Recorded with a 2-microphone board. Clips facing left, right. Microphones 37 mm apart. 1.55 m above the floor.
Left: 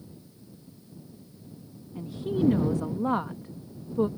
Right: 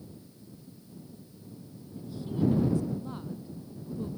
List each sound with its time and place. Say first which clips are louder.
1.9 s a woman speaking: left 4 dB; 70° left (ahead or behind)